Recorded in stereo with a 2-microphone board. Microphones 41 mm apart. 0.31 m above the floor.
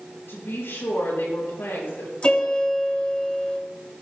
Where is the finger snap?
No finger snap in this recording.